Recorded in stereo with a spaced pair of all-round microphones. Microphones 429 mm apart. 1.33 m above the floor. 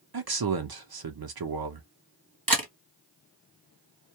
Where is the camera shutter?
50° right (ahead or behind), 1.1 m.